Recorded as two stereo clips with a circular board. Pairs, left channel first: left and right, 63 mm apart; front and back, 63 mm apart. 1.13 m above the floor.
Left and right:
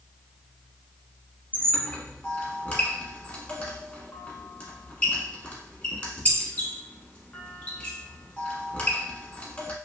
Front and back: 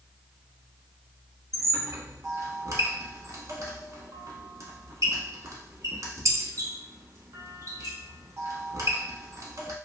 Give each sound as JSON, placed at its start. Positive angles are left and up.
{"t": 1.5, "sound": "a squeak", "azimuth_deg": 160, "distance_m": 1.0}